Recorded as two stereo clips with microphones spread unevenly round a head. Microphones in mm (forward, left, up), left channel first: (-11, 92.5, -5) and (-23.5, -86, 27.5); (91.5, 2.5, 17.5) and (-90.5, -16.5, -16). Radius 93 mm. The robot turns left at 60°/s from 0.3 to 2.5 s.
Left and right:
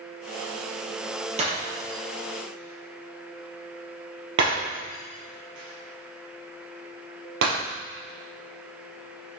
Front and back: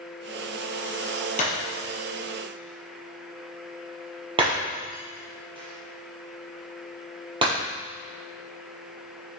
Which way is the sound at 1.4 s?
40° right.